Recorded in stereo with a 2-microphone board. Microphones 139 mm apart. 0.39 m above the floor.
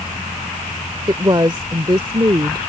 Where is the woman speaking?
30° right (ahead or behind).